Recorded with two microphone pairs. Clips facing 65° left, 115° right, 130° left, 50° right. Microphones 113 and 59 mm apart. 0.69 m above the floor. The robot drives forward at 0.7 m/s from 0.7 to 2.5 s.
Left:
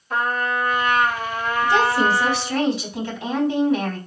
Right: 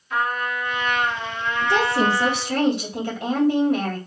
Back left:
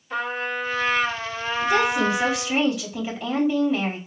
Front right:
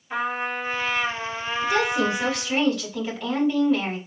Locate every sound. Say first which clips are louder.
0.1 s a trumpet: left 2 dB, even; 25° left, 1.2 m; by 2.6 s 130° left, 0.8 m
1.6 s a woman speaking: left 1 dB, back left 2 dB; 140° right, 2.5 m; by 4.0 s 145° right, 3 m